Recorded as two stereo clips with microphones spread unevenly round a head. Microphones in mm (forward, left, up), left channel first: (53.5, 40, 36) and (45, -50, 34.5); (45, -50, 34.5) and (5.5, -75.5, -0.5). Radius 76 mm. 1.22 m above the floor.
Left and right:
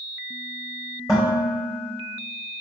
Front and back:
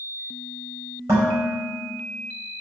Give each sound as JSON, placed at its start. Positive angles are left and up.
{"t": 1.1, "sound": "dishes clattering", "azimuth_deg": 155, "distance_m": 4.0}